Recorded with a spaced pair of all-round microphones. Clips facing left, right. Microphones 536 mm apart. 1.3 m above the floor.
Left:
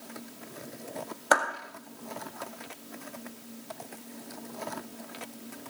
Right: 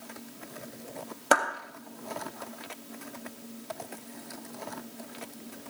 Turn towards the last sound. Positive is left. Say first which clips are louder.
# right 2 dB
turn(degrees=-50)  # may be behind; listen again after turning